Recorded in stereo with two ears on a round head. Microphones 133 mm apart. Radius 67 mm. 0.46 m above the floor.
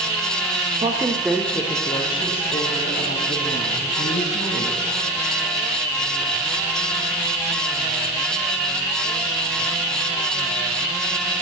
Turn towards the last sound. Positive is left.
turn(degrees=50)  # may be behind; listen again after turning